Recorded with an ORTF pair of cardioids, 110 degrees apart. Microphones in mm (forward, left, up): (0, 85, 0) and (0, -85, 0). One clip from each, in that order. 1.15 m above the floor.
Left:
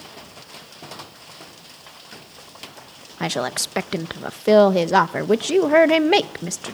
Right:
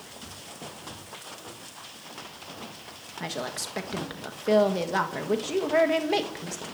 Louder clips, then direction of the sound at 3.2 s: Left 9 dB; 50° left.